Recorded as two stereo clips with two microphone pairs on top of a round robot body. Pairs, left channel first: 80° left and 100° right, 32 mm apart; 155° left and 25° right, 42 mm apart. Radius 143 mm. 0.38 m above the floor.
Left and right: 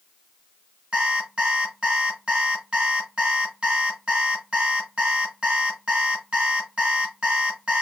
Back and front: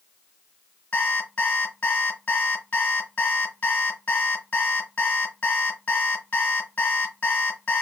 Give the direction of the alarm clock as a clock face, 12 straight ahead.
5 o'clock.